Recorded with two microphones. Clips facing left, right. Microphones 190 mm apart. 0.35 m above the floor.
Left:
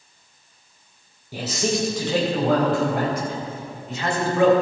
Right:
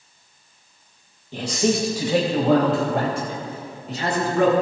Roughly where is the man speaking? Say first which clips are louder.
Right 3 dB; centre.